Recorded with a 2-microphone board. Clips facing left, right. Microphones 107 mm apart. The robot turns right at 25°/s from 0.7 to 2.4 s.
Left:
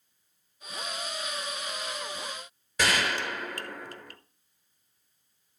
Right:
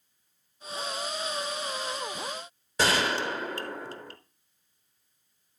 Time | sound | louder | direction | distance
2.8 | a gunshot | right 2 dB | 30° right (ahead or behind) | 1.0 m